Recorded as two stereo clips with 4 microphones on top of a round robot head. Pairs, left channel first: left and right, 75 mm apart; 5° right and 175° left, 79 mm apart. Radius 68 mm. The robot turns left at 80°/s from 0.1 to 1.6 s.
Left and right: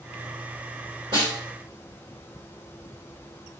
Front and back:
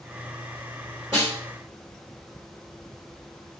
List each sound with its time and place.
1.1 s a snare drum: 110° right, 2.5 m; by 1.4 s 130° right, 2.5 m